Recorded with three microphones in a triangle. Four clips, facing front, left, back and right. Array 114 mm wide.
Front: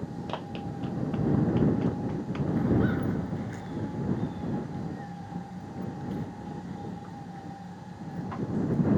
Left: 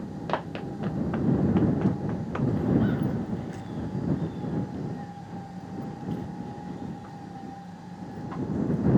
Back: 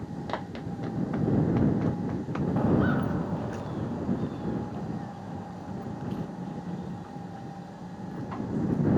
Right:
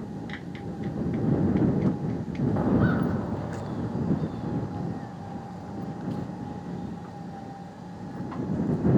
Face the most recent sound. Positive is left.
turn(degrees=-140)